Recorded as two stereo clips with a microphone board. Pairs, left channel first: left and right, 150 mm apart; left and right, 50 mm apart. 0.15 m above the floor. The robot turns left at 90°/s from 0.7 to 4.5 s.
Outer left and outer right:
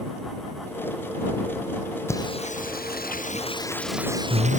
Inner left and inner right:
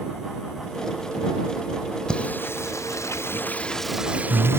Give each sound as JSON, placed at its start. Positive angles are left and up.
{"t": 2.1, "sound": "singing", "azimuth_deg": 165}